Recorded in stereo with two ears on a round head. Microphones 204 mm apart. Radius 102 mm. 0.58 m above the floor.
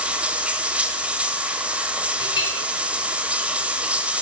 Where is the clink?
20° left (ahead or behind), 5 m.